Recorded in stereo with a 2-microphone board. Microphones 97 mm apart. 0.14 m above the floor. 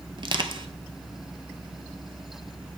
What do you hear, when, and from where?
0.2 s crushing: 55° right (ahead or behind), 0.7 m